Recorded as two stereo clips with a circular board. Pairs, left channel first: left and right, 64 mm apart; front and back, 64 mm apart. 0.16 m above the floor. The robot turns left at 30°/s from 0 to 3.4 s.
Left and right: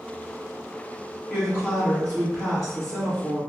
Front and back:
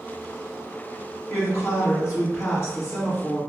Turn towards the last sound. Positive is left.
turn(degrees=-30)